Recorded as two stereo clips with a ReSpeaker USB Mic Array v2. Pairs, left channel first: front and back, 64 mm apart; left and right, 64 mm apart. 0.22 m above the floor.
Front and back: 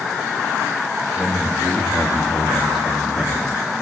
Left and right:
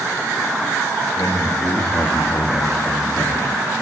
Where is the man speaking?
100° left, 7.5 m; by 3.6 s 90° left, 8.5 m.